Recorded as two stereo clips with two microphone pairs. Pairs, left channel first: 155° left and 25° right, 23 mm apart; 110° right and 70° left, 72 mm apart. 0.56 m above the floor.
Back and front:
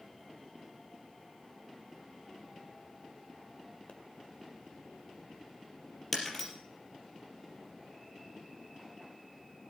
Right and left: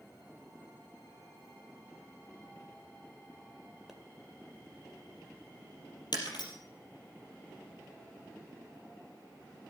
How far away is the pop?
About 1.8 m.